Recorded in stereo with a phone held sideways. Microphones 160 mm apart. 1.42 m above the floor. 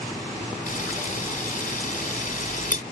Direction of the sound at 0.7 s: 60° left (ahead or behind).